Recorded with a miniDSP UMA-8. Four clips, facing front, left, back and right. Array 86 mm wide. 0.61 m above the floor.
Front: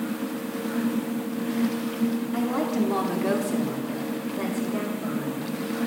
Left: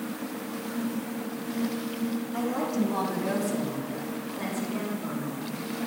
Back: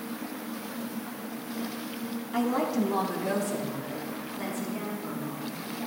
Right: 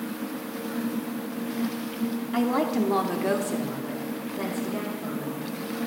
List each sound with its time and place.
2.3 s a woman speaking: 100° right, 1.3 m; by 5.6 s 25° right, 4 m